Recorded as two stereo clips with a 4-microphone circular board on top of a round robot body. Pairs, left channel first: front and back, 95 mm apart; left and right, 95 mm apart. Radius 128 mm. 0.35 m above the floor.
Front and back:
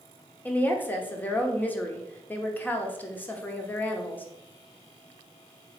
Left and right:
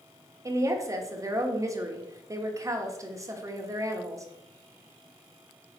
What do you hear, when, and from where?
0.5 s a woman speaking: 60° right, 1.3 m